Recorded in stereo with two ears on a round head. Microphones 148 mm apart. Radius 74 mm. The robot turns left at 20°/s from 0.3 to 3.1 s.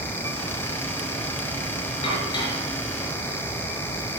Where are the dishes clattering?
35° left (ahead or behind), 4.5 m; by 3.4 s 15° left (ahead or behind), 4.5 m.